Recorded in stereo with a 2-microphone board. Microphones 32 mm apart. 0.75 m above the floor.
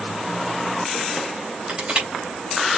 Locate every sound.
1.7 s crushing: 40° right (ahead or behind), 3.5 m